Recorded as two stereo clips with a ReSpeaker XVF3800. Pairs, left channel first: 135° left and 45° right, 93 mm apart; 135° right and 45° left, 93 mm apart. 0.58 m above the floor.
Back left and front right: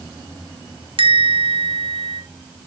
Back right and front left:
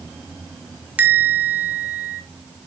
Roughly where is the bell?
Ahead right.